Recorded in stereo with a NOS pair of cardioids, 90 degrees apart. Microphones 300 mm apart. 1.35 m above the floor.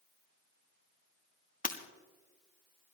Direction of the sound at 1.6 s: 25° left.